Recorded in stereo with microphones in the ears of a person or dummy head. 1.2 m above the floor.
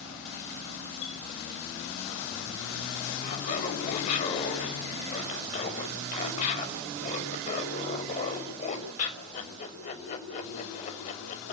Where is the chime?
75° left (ahead or behind), 7.5 m.